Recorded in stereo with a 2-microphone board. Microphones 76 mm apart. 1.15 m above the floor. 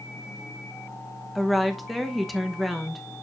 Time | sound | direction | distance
1.4 | a woman speaking | centre (ahead or behind) | 1.0 m